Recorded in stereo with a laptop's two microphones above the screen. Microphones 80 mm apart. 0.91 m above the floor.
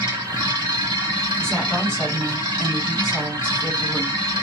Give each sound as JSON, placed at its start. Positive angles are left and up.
{"t": 0.0, "sound": "a machine running", "side_deg": -75, "distance_m": 1.3}
{"t": 1.4, "sound": "a woman speaking", "side_deg": -30, "distance_m": 1.2}